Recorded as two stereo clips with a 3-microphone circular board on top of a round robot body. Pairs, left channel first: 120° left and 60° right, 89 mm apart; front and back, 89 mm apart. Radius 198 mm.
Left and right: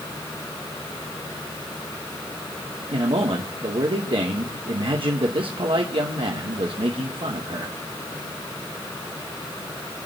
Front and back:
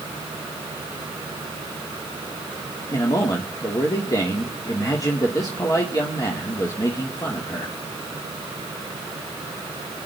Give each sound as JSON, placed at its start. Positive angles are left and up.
{"t": 2.9, "sound": "a man speaking", "azimuth_deg": -50, "distance_m": 2.5}